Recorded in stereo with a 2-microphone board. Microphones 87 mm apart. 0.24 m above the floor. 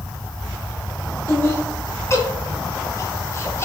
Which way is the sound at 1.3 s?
30° left (ahead or behind).